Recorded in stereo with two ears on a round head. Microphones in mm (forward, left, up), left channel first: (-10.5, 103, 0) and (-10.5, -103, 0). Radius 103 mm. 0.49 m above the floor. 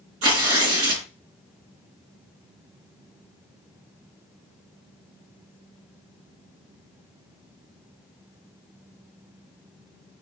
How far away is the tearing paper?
About 2.5 m.